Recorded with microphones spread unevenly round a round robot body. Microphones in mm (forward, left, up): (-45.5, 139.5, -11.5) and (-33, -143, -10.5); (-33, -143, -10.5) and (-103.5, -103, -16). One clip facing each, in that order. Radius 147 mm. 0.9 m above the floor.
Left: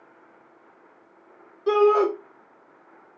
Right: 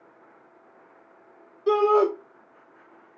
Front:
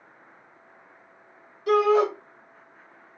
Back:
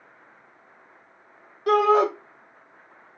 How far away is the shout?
About 1.6 m.